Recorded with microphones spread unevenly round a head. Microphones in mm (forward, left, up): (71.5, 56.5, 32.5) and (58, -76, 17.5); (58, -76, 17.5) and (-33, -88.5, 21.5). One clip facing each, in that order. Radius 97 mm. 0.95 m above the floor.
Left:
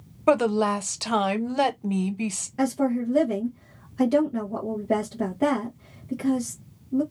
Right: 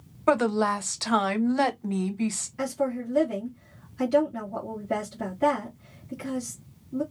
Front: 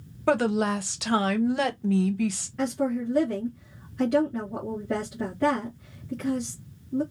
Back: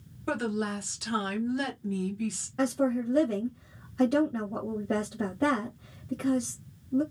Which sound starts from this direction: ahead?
A woman speaking, at 0.3 s.